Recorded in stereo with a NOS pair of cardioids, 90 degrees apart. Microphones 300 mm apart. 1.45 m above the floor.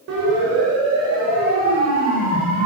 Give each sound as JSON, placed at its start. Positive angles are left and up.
{"t": 0.1, "sound": "a siren", "azimuth_deg": -65, "distance_m": 7.5}